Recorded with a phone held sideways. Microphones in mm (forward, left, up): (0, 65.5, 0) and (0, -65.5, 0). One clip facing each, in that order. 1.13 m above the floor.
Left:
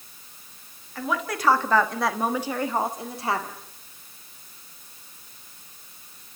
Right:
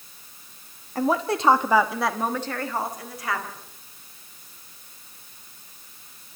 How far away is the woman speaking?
About 1.6 m.